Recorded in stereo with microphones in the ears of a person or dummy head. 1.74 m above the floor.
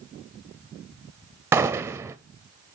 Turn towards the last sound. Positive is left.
turn(degrees=-5)  # may be behind; listen again after turning